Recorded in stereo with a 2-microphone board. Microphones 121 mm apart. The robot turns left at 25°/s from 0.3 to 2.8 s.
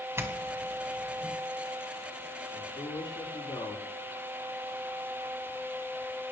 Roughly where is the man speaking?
Left.